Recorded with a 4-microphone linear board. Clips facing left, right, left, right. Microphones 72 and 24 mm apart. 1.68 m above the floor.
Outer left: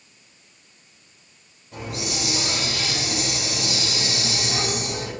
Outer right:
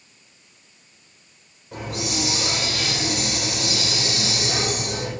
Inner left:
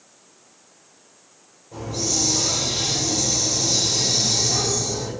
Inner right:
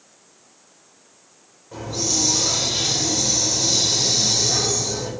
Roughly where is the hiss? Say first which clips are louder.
Outer right 2 dB, inner right 1 dB; right.